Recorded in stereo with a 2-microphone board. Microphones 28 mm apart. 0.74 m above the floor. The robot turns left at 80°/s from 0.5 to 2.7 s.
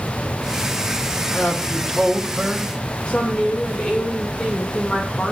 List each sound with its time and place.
1.3 s a man speaking: 90° left, 2.5 m; by 2.7 s 20° right, 2.5 m
3.1 s a woman speaking: 40° left (ahead or behind), 2.5 m